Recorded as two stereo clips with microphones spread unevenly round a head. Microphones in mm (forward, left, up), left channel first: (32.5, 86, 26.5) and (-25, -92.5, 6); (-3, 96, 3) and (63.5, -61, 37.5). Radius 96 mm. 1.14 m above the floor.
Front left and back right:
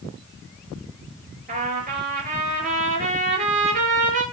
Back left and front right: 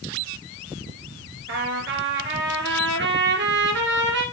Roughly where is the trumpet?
Ahead right.